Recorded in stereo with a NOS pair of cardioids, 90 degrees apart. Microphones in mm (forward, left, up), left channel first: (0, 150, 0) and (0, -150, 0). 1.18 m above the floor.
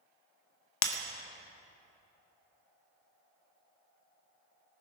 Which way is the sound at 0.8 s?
70° left.